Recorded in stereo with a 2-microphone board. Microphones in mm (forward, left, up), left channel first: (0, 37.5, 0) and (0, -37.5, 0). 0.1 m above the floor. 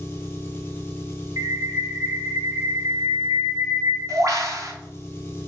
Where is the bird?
55° right (ahead or behind), 0.6 m.